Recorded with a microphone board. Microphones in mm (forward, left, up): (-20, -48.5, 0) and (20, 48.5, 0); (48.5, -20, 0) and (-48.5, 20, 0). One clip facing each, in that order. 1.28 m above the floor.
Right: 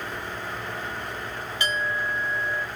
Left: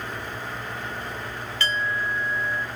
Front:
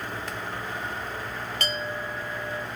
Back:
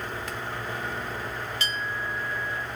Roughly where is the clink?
Ahead right.